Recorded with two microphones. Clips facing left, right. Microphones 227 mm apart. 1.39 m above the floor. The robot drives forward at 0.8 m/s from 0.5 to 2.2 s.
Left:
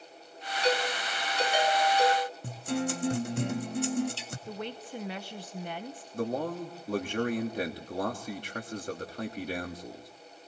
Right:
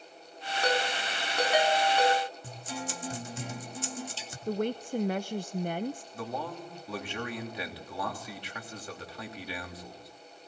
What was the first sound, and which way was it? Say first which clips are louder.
A ringtone: left 2 dB; 65° right (ahead or behind).